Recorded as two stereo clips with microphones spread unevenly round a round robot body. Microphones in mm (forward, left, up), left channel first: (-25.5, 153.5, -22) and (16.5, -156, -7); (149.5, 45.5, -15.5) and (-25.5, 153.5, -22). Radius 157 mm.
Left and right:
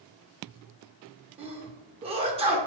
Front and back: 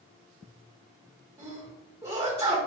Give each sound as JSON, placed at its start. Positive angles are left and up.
{"t": 1.4, "sound": "a sneeze", "azimuth_deg": -145, "distance_m": 1.0}